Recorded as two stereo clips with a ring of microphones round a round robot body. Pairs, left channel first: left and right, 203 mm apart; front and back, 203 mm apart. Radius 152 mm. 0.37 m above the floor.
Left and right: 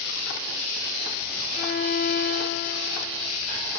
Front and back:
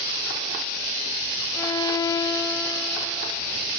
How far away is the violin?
About 2 m.